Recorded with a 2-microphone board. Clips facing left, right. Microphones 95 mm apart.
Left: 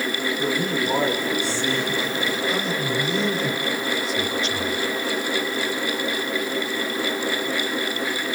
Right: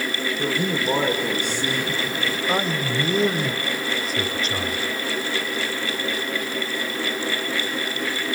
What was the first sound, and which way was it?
A man speaking, 25° right (ahead or behind).